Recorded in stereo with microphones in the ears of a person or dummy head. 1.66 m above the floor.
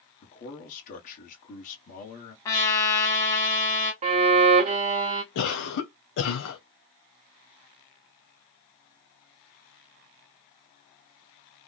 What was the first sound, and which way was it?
A man speaking, 45° left (ahead or behind).